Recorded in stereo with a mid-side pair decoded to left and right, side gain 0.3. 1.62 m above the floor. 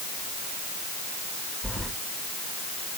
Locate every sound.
1.6 s keys jangling: 15° right, 4.5 m